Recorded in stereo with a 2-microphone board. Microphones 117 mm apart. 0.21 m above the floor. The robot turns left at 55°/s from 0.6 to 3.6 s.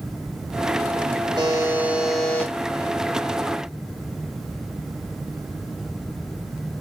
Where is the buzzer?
140° right, 1.0 m; by 2.5 s 155° left, 1.0 m.